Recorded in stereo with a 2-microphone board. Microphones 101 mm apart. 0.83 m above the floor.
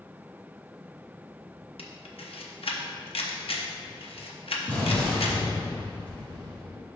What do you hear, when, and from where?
1.8 s a camera shutter: 70° left (ahead or behind), 0.8 m
4.7 s an explosion: 15° left (ahead or behind), 1.9 m